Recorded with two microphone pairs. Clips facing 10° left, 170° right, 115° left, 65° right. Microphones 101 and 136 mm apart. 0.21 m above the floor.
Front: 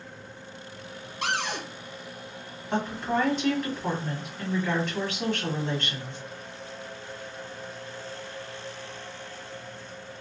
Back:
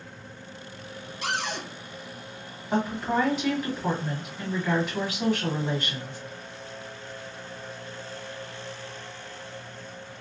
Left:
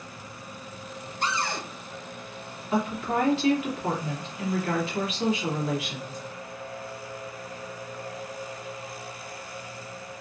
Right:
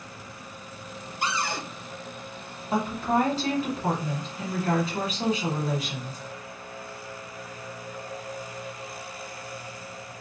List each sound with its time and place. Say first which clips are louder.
1.2 s a cupboard door: front 1 dB, even; 20° left, 1.0 m
2.7 s a woman speaking: back 2 dB, right 2 dB; 90° right, 1.4 m